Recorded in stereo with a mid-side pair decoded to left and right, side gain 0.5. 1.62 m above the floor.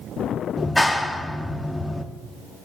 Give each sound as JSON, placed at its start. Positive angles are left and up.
{"t": 0.6, "sound": "a clap", "azimuth_deg": 10, "distance_m": 1.2}